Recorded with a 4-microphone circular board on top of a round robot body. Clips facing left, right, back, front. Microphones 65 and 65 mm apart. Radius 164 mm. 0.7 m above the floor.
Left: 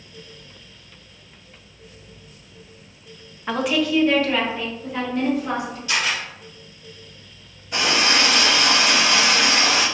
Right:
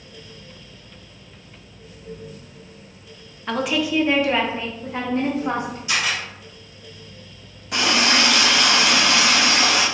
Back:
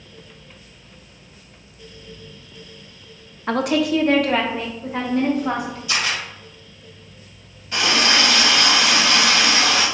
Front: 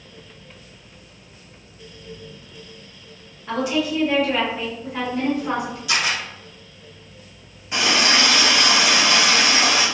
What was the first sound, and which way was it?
A woman speaking, 170° left.